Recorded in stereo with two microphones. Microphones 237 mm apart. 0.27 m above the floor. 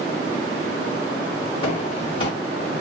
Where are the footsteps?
20° left (ahead or behind), 1.9 m.